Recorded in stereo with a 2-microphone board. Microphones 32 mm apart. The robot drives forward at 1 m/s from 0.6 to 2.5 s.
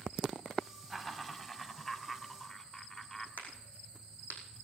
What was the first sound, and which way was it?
Laughter, 10° left (ahead or behind).